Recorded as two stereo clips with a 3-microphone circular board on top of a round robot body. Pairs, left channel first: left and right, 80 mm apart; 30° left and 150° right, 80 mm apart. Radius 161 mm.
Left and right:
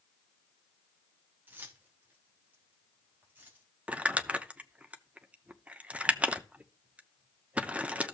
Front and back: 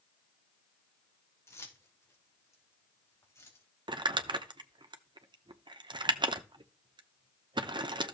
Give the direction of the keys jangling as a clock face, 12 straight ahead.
1 o'clock.